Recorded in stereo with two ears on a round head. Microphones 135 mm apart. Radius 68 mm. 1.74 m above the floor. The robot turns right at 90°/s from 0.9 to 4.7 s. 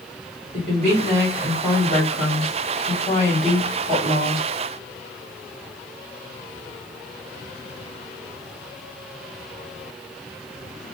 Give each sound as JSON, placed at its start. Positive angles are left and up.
{"t": 0.5, "sound": "a woman speaking", "azimuth_deg": -50, "distance_m": 1.8}